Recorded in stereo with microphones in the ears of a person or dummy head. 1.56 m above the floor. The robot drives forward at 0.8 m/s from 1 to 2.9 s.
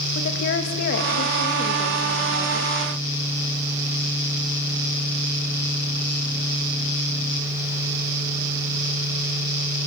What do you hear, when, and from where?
0.1 s a woman speaking: 60° left (ahead or behind), 2.5 m; by 2.7 s 40° left (ahead or behind), 3.5 m